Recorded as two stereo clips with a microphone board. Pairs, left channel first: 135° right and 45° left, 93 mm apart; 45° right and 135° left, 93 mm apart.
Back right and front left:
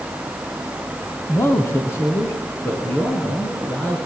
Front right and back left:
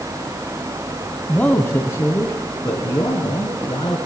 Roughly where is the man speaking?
Right.